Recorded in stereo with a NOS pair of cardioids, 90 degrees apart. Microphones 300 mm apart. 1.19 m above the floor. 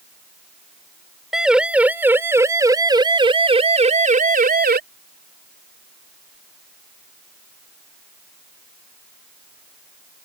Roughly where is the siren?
Ahead.